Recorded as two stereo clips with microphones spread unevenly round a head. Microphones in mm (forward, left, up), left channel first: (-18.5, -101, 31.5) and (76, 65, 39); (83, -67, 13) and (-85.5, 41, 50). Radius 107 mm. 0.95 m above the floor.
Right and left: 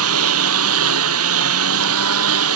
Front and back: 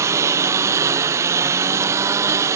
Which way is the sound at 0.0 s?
70° left.